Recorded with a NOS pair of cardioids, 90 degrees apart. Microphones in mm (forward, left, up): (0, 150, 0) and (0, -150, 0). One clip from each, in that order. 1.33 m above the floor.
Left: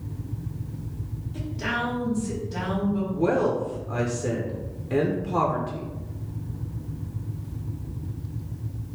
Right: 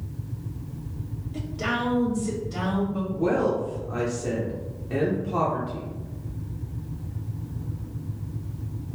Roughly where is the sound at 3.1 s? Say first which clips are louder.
Even; ahead.